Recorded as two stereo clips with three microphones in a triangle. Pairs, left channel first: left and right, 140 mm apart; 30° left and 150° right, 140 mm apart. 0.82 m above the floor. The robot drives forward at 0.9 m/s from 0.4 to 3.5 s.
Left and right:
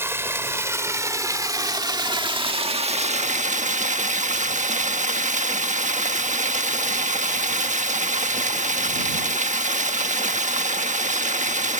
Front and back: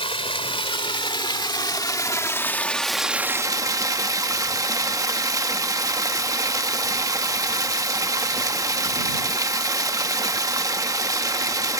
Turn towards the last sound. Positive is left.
turn(degrees=-85)